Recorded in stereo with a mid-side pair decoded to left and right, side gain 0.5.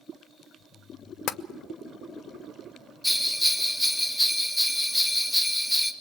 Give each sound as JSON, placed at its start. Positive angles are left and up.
{"t": 1.3, "sound": "tapping", "azimuth_deg": 70, "distance_m": 0.7}
{"t": 3.0, "sound": "a bell", "azimuth_deg": 5, "distance_m": 1.9}